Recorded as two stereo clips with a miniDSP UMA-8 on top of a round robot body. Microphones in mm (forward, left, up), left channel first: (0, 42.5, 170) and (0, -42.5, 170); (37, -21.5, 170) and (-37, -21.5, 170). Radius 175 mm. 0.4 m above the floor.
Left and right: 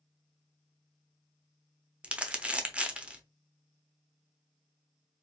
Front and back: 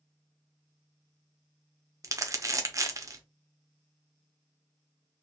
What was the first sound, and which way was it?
Crumpling, 160° right.